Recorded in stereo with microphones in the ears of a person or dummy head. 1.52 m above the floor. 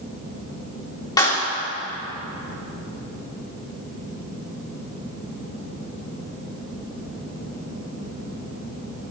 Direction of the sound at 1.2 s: 10° left (ahead or behind).